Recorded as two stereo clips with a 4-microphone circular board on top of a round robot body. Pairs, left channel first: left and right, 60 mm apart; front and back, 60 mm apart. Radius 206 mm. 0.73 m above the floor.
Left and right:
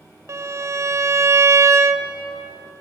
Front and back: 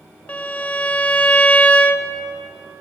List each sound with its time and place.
0.3 s a violin: 65° right, 0.7 m